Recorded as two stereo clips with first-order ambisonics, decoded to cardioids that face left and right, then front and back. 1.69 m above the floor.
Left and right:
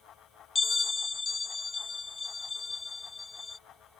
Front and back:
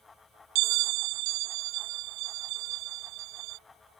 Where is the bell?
165° left.